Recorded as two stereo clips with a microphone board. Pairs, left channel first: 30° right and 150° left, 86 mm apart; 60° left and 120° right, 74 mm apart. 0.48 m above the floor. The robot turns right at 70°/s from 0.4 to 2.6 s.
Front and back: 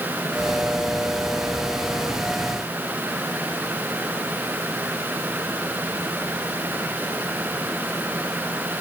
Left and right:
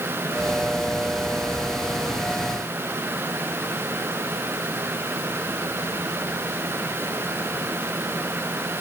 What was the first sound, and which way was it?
Only background noise.